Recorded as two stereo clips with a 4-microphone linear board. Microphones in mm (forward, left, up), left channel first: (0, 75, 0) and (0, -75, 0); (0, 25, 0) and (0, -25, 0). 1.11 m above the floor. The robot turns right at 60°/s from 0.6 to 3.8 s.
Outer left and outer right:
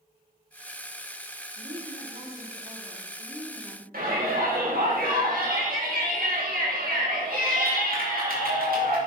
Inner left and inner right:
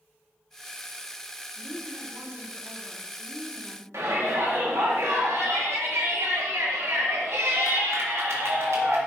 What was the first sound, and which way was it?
A woman speaking, 125° right.